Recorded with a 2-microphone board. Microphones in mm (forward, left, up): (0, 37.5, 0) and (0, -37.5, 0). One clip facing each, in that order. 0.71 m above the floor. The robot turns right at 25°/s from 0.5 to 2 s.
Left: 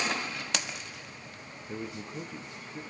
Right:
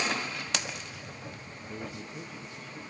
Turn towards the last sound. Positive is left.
turn(degrees=20)  # may be behind; listen again after turning